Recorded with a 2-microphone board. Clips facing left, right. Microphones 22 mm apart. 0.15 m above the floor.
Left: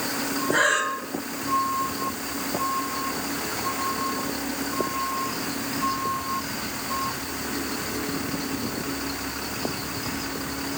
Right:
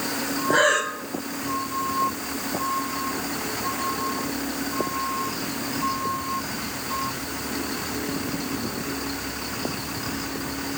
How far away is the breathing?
About 4 m.